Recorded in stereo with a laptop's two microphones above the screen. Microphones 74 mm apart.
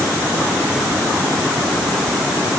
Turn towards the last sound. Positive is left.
No sound to turn to.